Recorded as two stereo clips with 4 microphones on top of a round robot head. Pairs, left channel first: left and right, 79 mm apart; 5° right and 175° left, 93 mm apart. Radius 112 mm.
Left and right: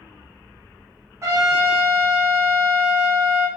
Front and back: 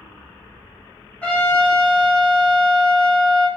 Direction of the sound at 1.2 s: 70° right.